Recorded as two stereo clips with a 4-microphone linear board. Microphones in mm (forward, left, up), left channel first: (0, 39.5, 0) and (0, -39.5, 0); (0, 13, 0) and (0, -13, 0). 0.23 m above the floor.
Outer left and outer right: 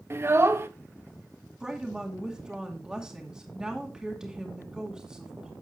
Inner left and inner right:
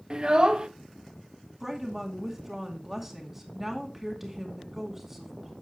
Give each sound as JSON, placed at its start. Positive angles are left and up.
{"t": 0.1, "sound": "a child speaking", "side_deg": -30, "distance_m": 0.7}
{"t": 1.6, "sound": "a woman speaking", "side_deg": -10, "distance_m": 2.5}